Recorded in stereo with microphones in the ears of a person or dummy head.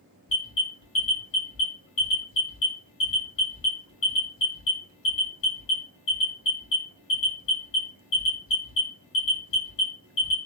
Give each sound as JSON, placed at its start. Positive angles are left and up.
{"t": 0.3, "sound": "an alarm", "side_deg": 20, "distance_m": 1.6}